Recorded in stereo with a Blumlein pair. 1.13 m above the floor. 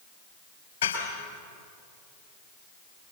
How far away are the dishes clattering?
About 4.5 m.